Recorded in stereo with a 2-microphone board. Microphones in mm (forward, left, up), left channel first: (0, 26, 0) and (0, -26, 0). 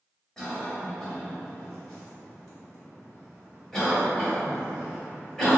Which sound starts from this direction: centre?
A cough, at 0.4 s.